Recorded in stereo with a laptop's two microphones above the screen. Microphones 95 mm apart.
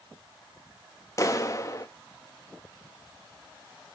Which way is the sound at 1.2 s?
35° left (ahead or behind).